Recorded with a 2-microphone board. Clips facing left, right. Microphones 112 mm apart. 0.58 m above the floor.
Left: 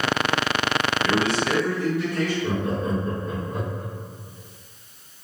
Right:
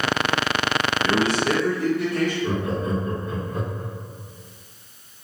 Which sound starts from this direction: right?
A man speaking, at 1.0 s.